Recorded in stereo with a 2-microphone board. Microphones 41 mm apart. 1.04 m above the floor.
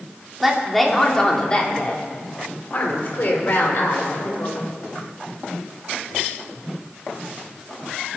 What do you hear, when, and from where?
0.4 s a woman speaking: 5° right (ahead or behind), 2.5 m; by 4.6 s 60° left (ahead or behind), 4 m